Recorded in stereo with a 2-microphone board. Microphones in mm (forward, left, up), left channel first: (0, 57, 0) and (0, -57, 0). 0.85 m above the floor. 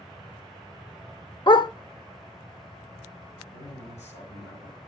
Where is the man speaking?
75° left (ahead or behind), 6.5 m.